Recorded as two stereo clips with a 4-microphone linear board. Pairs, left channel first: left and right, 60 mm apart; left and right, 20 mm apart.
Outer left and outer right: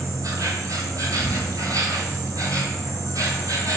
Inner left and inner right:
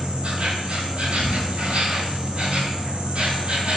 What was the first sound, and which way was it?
An insect, 75° right (ahead or behind).